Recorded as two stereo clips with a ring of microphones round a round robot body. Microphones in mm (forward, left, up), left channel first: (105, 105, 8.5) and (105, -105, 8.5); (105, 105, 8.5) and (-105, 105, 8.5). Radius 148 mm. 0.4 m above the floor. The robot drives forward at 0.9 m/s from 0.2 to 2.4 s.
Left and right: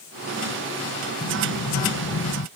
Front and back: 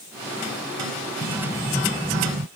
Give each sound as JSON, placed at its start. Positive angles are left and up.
{"t": 1.2, "sound": "an explosion", "azimuth_deg": 50}